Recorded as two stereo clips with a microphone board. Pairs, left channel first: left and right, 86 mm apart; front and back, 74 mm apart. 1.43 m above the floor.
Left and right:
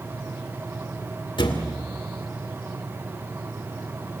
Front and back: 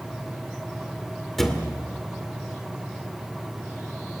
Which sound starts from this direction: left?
A thud, at 1.4 s.